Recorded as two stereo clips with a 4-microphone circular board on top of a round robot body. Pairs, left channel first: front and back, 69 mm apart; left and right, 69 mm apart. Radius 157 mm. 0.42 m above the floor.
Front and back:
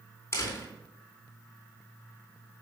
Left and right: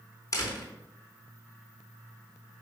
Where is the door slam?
55° left, 3 m.